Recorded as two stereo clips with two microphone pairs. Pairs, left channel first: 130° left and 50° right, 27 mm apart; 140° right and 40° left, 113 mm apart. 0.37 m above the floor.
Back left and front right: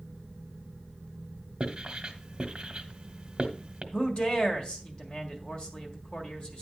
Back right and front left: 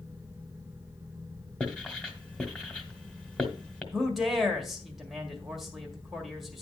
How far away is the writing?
About 1.2 m.